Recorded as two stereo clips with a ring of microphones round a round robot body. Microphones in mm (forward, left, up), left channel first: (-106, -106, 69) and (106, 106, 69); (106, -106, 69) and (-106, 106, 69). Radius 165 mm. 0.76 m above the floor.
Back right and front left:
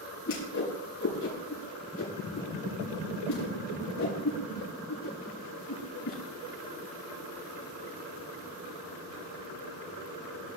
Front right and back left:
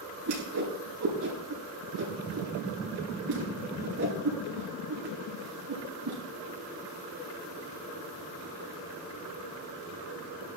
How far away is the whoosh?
About 8.5 m.